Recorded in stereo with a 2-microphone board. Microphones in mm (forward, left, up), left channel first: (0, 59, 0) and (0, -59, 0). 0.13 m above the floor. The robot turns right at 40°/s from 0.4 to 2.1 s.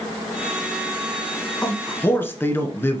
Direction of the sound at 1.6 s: 5° left (ahead or behind).